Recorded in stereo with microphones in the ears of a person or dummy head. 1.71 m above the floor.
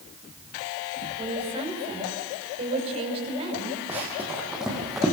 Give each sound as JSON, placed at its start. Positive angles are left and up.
{"t": 1.2, "sound": "a woman speaking", "side_deg": -30, "distance_m": 5.5}
{"t": 3.9, "sound": "running footsteps", "side_deg": -15, "distance_m": 4.5}